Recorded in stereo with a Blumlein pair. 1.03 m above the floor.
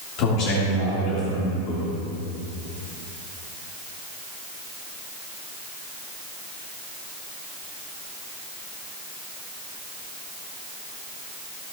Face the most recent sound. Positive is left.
turn(degrees=40)